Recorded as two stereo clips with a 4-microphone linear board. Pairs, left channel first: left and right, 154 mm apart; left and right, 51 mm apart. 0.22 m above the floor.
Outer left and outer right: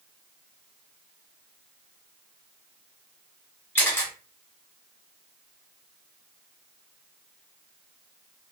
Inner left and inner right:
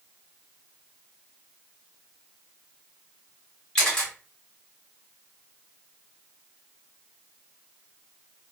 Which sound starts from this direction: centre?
A camera shutter, at 3.8 s.